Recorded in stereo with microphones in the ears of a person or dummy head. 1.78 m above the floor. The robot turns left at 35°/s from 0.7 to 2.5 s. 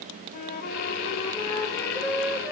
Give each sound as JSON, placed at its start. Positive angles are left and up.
{"t": 0.3, "sound": "a flute", "azimuth_deg": 50, "distance_m": 1.1}